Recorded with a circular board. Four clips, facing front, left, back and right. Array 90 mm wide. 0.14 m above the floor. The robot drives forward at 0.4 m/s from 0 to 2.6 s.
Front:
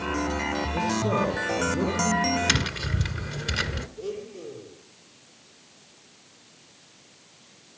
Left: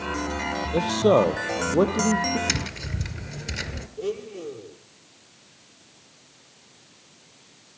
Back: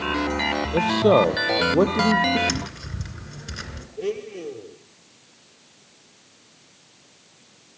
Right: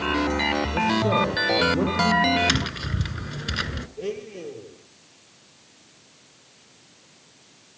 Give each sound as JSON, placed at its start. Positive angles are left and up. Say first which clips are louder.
{"t": 0.7, "sound": "a man speaking", "louder": "left 5 dB, back 10 dB", "azimuth_deg": 150, "distance_m": 4.0}
{"t": 2.5, "sound": "tapping", "louder": "right 4 dB, front 2 dB", "azimuth_deg": -55, "distance_m": 1.9}
{"t": 4.0, "sound": "a blender", "louder": "left 2 dB, back 10 dB", "azimuth_deg": -150, "distance_m": 3.0}